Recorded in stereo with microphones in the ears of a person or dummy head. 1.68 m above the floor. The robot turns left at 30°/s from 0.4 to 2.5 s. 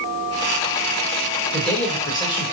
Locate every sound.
1.5 s a man speaking: 5° left (ahead or behind), 0.8 m; by 2.5 s 30° left (ahead or behind), 0.8 m